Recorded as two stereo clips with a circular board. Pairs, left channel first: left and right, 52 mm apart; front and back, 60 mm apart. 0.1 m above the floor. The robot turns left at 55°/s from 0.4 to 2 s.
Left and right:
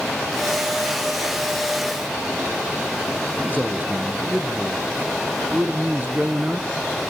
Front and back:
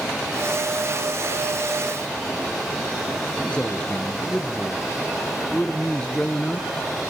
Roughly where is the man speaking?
Ahead right.